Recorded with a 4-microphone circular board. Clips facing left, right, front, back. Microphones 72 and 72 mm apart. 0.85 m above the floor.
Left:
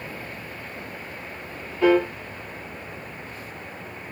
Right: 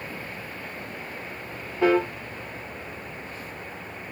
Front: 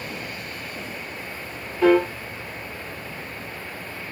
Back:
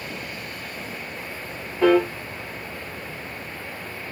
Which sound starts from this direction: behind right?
A piano, at 1.8 s.